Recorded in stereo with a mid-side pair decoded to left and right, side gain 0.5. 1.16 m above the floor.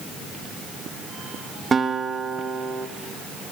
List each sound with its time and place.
1.7 s a guitar: 30° right, 2.0 m